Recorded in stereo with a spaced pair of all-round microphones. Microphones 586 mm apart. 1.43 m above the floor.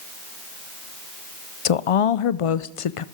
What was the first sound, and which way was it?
A woman speaking, 70° left (ahead or behind).